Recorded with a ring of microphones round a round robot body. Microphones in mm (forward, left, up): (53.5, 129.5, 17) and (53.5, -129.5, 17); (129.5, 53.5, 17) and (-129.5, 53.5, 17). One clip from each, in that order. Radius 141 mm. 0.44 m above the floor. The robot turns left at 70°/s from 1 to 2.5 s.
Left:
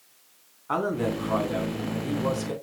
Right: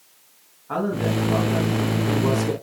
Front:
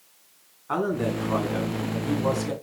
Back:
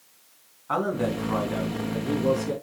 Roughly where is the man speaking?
Left.